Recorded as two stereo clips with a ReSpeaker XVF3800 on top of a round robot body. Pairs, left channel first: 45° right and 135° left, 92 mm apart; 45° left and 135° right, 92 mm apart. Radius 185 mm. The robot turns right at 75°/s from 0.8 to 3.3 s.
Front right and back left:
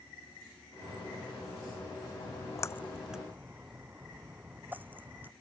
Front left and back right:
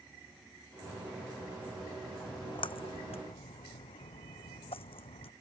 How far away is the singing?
No singing in this recording.